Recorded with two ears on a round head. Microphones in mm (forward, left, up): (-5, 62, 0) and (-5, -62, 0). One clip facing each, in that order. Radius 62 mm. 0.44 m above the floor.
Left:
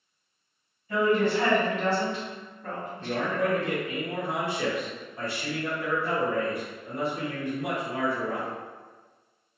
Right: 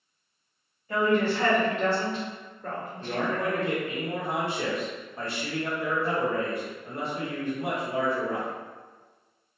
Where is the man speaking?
25° right (ahead or behind), 1.1 m.